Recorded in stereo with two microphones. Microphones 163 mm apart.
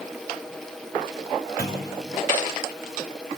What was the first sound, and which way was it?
A clunk, 65° left (ahead or behind).